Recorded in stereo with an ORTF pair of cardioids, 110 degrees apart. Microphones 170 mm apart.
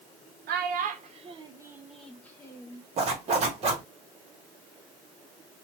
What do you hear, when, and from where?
0.5 s a child speaking: 70° right, 0.8 m; by 2.8 s 25° left, 1.0 m
3.0 s a zipper: 40° right, 1.2 m